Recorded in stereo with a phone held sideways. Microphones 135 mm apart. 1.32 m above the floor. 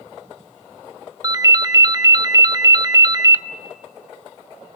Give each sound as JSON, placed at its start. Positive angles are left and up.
{"t": 1.2, "sound": "a ringtone", "side_deg": -25, "distance_m": 0.6}